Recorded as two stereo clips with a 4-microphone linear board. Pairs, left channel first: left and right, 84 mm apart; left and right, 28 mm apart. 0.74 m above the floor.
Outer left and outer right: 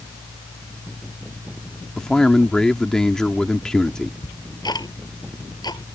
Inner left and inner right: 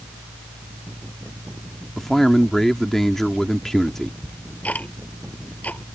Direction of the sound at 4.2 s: 55° left (ahead or behind).